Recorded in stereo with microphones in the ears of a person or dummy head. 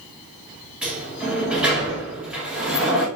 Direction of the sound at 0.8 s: 10° right (ahead or behind).